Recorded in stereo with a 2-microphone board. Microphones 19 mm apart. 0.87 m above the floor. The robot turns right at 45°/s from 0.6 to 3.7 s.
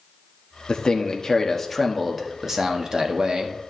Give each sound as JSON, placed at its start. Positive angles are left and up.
{"t": 0.7, "sound": "a man speaking", "azimuth_deg": 120, "distance_m": 1.3}